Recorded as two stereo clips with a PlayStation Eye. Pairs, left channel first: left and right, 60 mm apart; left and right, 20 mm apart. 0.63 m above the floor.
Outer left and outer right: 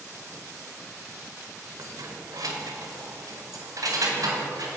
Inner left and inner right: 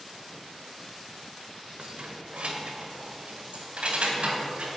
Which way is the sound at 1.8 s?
75° right (ahead or behind).